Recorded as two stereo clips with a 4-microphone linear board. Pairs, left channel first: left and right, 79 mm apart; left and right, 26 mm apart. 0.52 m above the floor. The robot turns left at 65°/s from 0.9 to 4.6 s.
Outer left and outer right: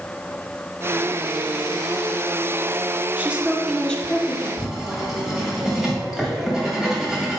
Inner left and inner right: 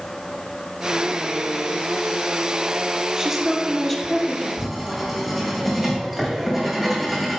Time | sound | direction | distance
3.2 | a woman speaking | 150° right | 1.0 m
4.6 | writing | centre (ahead or behind) | 2 m